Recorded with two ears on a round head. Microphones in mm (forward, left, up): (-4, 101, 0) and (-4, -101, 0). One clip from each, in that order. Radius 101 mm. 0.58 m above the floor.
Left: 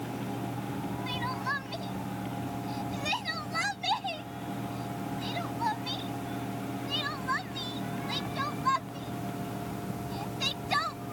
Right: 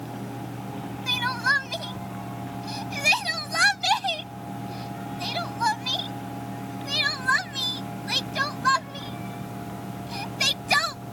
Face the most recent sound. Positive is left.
turn(degrees=-55)  # may be behind; listen again after turning